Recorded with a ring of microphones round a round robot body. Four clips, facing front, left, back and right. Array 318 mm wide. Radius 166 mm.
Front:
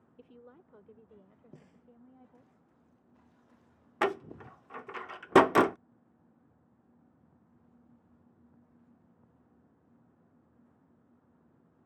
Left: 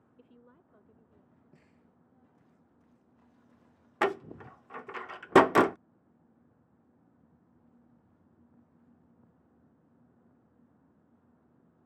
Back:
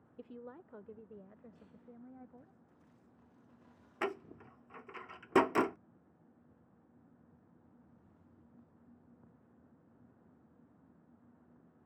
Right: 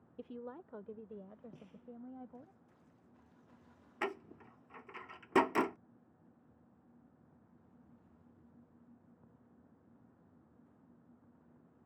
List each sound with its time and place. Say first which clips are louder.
0.2 s a woman speaking: right 13 dB, back 5 dB; 115° right; by 2.5 s 105° right
1.5 s a snare drum: right 6 dB, front 3 dB; 15° right
4.0 s a door slam: left 11 dB, front 8 dB; 60° left